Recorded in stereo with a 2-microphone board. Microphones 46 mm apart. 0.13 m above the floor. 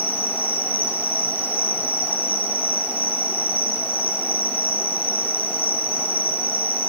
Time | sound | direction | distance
0.0 | an insect | 35° right (ahead or behind) | 2.5 m